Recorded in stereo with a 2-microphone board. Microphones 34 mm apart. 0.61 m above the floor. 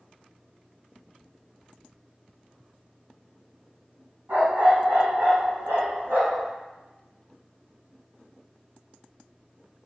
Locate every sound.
4.3 s a dog barking: 65° right (ahead or behind), 1.9 m; by 6.5 s 80° right, 2.5 m